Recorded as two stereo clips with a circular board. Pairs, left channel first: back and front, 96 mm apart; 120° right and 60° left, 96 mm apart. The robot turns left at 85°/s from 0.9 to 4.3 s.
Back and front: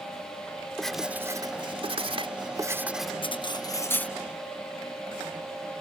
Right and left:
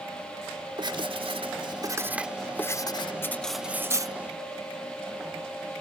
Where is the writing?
95° left; by 3.1 s 95° right.